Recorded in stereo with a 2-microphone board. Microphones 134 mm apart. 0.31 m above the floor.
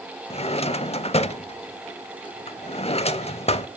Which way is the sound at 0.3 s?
50° left (ahead or behind).